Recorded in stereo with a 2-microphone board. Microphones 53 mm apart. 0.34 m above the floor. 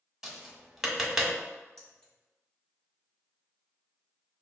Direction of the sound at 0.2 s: 5° right (ahead or behind).